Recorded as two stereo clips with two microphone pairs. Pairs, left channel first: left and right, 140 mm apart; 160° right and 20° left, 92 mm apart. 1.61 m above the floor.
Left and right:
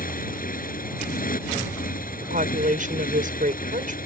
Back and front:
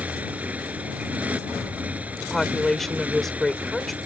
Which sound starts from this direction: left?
A motorcycle, at 0.0 s.